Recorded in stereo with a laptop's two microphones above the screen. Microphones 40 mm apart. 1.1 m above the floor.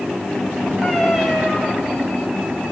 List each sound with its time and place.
0.8 s a cat meowing: 5° left (ahead or behind), 7 m